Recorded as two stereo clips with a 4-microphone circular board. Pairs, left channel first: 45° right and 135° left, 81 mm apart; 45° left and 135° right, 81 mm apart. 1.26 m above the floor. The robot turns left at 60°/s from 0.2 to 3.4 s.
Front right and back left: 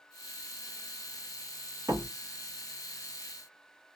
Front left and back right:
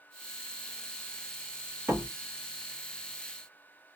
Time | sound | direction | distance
1.9 | a door slam | 165° left | 2 m